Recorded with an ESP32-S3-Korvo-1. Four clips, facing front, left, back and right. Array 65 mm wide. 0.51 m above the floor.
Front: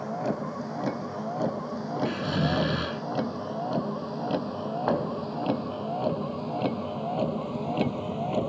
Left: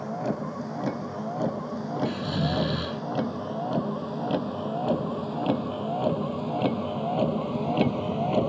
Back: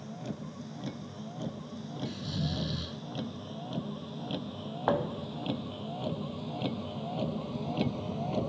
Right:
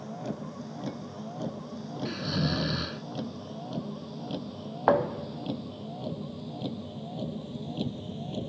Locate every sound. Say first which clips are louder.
0.0 s a vehicle: left 7 dB, front 11 dB; 35° left; by 8.5 s 70° left
2.0 s snoring: even, front 8 dB; 5° right
4.9 s a thud: right 7 dB, even; 85° right